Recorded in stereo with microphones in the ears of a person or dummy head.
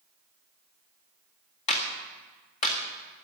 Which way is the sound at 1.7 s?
40° left (ahead or behind).